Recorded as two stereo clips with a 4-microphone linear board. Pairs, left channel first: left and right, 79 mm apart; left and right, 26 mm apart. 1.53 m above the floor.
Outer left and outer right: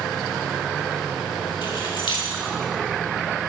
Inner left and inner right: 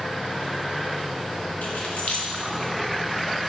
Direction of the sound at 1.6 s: 65° left (ahead or behind).